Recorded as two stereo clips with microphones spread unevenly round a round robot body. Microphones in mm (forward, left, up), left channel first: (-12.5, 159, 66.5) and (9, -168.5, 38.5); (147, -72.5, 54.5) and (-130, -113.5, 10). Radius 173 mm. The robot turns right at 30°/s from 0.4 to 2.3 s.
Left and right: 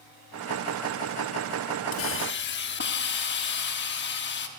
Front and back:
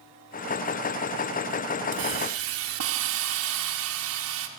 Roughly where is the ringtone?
No ringtone in this recording.